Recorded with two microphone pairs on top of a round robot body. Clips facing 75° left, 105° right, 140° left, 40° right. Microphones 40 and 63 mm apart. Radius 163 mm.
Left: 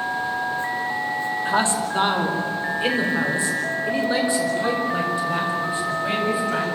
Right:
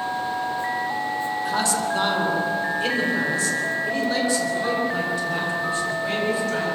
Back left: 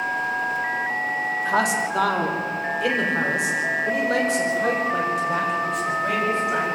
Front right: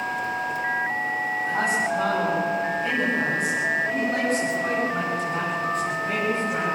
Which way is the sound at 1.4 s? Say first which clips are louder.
Left 3 dB, back left 2 dB; 135° left.